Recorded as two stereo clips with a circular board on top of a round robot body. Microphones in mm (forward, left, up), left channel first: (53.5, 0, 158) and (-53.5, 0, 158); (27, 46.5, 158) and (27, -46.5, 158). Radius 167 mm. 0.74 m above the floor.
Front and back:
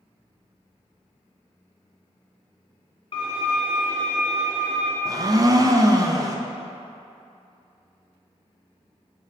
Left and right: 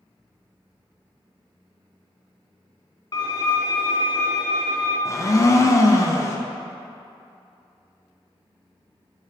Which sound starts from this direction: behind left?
A blender, at 5.0 s.